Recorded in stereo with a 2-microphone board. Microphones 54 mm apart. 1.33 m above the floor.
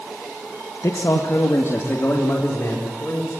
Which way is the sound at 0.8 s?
80° left.